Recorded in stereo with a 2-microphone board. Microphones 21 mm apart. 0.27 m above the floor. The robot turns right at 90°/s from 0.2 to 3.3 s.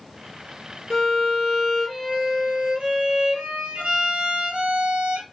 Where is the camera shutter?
No camera shutter in this recording.